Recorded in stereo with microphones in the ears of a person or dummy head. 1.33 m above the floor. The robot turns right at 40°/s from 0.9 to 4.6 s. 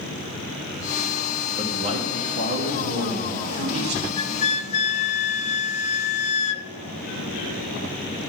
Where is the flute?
25° left (ahead or behind), 0.5 m; by 6.7 s 40° left (ahead or behind), 0.5 m.